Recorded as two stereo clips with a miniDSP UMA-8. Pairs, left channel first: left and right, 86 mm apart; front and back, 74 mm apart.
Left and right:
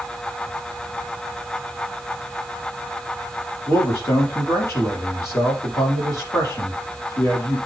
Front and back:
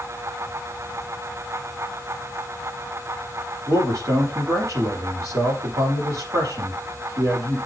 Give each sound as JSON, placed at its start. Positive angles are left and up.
{"t": 3.7, "sound": "a man speaking", "azimuth_deg": 145, "distance_m": 5.5}